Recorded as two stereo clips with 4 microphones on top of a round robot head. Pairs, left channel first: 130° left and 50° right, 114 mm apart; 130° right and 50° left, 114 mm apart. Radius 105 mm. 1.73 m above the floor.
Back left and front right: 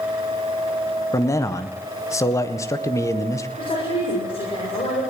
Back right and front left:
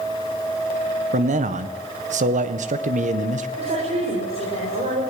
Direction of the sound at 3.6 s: 85° left.